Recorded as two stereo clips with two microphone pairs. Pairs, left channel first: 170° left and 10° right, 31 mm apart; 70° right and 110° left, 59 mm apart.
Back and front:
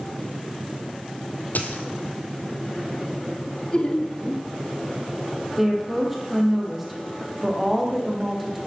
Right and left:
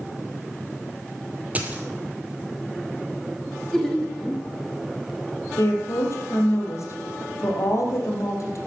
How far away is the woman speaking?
About 3.5 m.